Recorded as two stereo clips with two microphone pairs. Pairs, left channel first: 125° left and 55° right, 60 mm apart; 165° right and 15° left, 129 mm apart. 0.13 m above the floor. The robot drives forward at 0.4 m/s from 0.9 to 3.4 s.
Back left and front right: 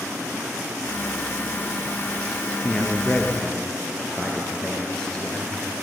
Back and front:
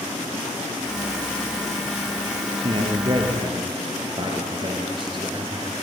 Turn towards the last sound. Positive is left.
turn(degrees=50)